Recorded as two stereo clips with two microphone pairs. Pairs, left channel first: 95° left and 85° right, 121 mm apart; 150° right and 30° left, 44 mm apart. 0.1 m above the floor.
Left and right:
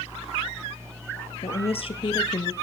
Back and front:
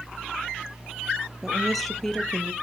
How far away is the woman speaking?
About 2 m.